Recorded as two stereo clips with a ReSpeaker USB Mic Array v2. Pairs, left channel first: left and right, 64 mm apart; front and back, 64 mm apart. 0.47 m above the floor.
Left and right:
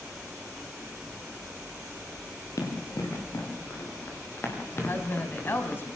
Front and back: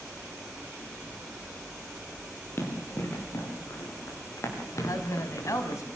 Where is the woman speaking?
35° left, 3 m.